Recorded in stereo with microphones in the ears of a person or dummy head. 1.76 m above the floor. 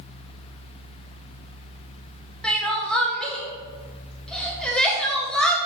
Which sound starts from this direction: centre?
Crying, at 2.4 s.